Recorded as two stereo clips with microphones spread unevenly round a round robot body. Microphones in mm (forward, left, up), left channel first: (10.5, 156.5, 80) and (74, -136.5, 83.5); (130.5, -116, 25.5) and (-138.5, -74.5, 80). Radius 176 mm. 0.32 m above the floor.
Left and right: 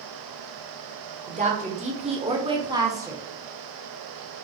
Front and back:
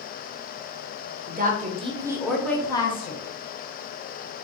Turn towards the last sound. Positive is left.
turn(degrees=0)